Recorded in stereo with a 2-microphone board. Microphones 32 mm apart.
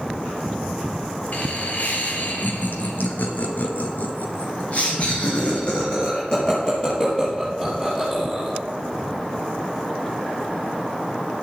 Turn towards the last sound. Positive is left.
turn(degrees=15)  # may be behind; listen again after turning